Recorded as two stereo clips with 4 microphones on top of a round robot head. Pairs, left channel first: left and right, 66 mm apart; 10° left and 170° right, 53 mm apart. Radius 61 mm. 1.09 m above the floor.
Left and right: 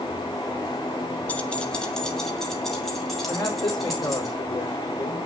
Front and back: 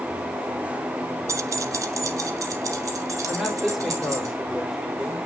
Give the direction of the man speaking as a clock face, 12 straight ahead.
8 o'clock.